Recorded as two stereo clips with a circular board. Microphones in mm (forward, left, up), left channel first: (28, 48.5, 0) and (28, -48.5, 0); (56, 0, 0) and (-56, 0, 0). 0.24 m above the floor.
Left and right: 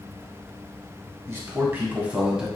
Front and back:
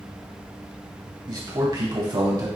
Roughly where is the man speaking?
Behind right.